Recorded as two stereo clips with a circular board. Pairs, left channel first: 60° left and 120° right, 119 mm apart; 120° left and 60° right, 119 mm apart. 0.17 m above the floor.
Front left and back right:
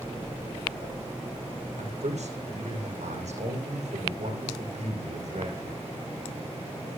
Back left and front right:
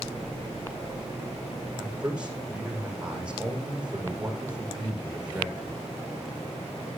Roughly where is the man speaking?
Behind right.